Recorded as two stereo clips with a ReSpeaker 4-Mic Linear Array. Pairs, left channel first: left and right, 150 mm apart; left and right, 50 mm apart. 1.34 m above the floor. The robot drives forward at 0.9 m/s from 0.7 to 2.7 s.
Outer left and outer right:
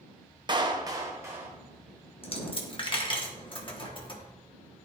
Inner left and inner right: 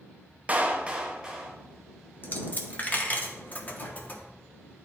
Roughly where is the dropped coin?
Left.